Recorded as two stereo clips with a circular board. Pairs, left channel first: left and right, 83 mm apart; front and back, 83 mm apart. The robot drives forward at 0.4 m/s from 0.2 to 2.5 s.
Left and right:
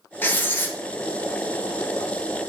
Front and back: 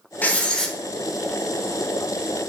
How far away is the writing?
About 0.7 m.